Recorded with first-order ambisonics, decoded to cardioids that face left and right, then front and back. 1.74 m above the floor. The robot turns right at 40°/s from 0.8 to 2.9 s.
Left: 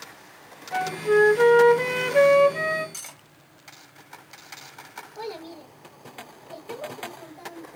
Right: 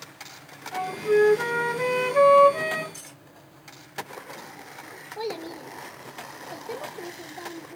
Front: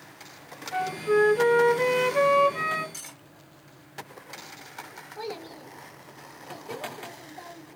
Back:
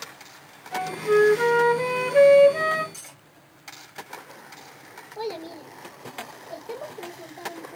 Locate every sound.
0.7 s a flute: 90° left, 1.8 m; by 2.8 s 170° left, 1.8 m
2.9 s cutlery clinking: 75° left, 1.2 m
5.2 s a child speaking: 115° right, 1.0 m